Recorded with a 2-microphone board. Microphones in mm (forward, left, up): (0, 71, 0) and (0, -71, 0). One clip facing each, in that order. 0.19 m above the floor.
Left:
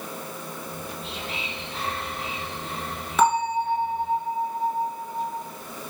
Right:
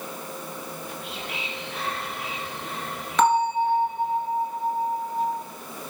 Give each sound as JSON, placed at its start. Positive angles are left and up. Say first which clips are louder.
{"t": 0.7, "sound": "whispering", "louder": "even", "side_deg": 30, "distance_m": 1.9}
{"t": 3.2, "sound": "a bell", "louder": "right 1 dB", "side_deg": 10, "distance_m": 1.1}